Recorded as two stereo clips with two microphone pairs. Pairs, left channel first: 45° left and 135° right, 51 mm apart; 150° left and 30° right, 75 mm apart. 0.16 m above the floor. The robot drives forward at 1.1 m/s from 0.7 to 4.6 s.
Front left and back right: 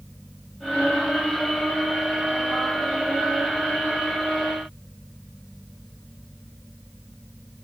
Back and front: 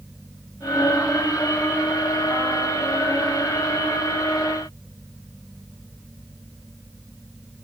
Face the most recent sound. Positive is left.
No sound to turn to.